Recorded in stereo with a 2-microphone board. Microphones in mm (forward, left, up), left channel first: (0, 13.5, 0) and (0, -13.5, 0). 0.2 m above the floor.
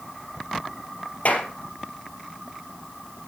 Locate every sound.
1.2 s a clap: 70° left (ahead or behind), 3.5 m